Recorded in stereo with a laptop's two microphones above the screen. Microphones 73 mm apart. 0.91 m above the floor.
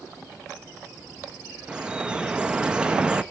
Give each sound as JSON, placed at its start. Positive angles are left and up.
{"t": 1.7, "sound": "dripping", "side_deg": -15, "distance_m": 0.6}